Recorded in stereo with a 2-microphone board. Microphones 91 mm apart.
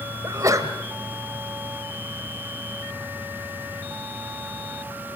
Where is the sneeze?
35° right (ahead or behind), 1.8 m.